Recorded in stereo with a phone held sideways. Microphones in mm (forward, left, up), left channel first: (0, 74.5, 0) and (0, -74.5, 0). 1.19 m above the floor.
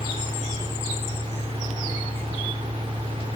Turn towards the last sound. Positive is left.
turn(degrees=-40)  # may be behind; listen again after turning